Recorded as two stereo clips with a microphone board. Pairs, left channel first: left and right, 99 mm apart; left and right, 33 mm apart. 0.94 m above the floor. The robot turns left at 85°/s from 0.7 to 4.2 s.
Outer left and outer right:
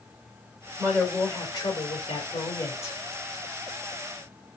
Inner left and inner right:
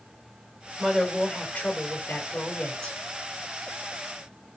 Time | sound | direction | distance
0.8 | a woman speaking | 155° right | 2.5 m